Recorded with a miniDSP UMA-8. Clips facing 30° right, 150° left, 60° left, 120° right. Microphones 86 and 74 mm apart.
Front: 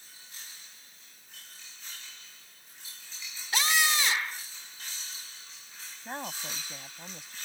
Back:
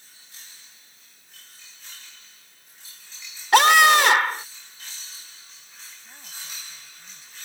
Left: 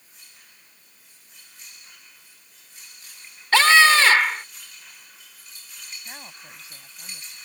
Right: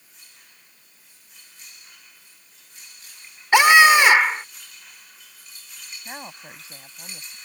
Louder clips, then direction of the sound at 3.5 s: Back 14 dB, right 3 dB; 165° left.